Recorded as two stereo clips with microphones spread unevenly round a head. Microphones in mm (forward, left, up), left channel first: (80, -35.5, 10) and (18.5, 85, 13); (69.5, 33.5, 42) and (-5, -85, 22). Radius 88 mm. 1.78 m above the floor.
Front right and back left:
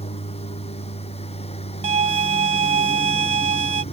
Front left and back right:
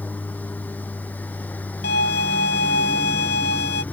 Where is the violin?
85° left.